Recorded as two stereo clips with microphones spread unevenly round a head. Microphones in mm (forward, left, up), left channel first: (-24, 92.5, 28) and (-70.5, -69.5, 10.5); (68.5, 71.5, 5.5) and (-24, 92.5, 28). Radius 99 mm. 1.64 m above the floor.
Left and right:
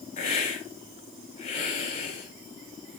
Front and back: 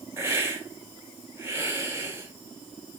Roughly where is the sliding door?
I don't hear a sliding door.